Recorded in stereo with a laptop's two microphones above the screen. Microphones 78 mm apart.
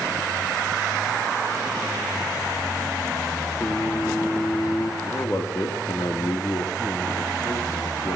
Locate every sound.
3.6 s singing: 35° left (ahead or behind), 2 m
5.0 s a man speaking: 40° left (ahead or behind), 2.5 m